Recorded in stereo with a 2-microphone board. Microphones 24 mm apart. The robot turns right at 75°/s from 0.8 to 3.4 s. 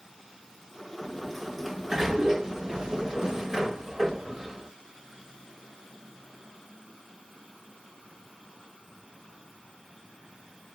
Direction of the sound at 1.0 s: 20° left (ahead or behind).